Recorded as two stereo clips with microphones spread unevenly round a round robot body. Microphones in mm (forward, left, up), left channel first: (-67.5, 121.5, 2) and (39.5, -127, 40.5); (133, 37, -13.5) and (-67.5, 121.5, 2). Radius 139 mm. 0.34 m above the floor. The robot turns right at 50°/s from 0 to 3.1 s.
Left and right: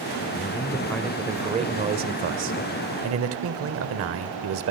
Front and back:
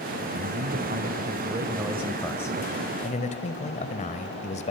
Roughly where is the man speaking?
Behind.